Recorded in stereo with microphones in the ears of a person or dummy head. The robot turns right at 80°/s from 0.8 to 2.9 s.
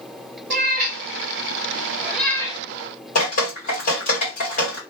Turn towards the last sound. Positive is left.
turn(degrees=45)  # may be behind; listen again after turning